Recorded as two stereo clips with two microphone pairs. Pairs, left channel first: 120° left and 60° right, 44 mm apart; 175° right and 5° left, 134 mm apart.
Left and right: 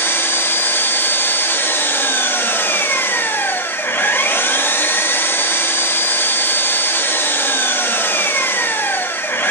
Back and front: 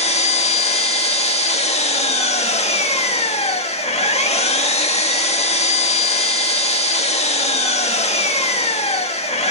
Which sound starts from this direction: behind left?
An engine running, at 0.0 s.